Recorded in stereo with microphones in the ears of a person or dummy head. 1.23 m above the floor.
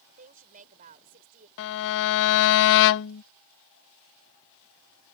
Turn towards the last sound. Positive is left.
turn(degrees=70)  # may be behind; listen again after turning